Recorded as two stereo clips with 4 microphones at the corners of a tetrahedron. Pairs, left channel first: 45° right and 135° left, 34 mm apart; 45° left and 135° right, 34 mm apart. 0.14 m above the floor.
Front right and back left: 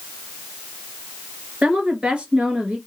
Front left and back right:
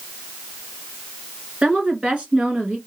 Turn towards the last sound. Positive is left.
turn(degrees=175)